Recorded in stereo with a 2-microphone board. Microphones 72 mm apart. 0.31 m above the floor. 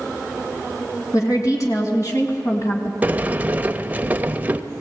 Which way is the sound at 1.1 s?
50° left (ahead or behind).